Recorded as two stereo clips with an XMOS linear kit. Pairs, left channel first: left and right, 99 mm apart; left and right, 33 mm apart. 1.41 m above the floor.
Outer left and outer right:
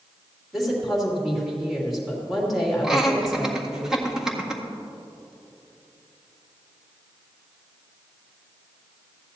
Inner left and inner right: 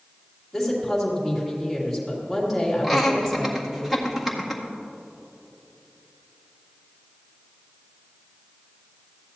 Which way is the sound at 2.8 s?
5° right (ahead or behind).